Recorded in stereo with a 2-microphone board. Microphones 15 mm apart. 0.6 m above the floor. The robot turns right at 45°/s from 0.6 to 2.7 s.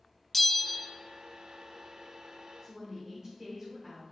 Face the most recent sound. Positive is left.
turn(degrees=-50)  # may be behind; listen again after turning